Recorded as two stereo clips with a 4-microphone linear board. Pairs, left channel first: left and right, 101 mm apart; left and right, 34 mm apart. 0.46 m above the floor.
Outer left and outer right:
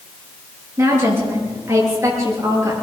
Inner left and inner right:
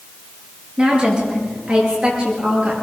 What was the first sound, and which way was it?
A woman speaking, 25° right (ahead or behind).